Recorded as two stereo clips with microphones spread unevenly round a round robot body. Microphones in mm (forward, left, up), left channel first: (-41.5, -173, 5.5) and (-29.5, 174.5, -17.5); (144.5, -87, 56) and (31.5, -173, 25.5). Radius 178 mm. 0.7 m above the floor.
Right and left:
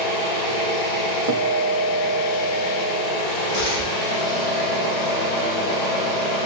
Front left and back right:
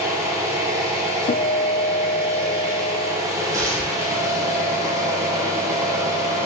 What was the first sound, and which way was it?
An engine running, 70° right.